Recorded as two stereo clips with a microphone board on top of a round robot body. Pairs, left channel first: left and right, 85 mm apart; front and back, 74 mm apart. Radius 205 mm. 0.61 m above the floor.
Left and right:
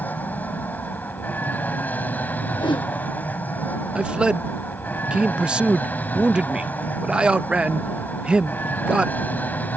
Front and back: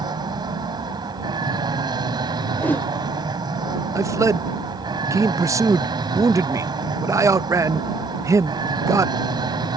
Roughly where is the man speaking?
Behind.